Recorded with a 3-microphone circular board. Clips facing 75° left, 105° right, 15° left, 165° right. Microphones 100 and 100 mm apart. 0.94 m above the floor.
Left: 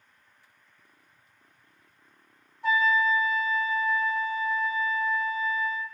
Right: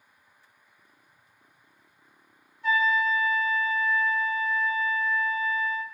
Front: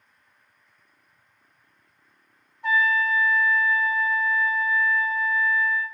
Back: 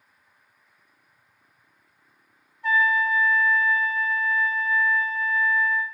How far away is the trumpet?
About 0.9 m.